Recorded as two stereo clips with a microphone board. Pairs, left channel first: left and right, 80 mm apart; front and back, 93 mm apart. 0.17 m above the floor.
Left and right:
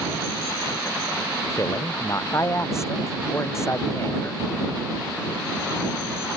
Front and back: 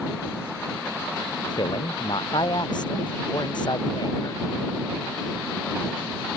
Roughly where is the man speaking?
Ahead left.